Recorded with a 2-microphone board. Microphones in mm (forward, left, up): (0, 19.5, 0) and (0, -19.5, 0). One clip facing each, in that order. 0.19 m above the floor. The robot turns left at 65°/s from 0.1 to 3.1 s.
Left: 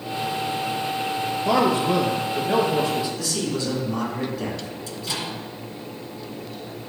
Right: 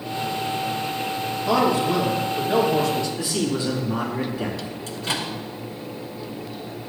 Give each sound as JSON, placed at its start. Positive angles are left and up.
{"t": 1.4, "sound": "a man speaking", "azimuth_deg": 120, "distance_m": 3.0}
{"t": 3.2, "sound": "a man speaking", "side_deg": -30, "distance_m": 3.0}
{"t": 4.9, "sound": "a microwave", "side_deg": -50, "distance_m": 1.8}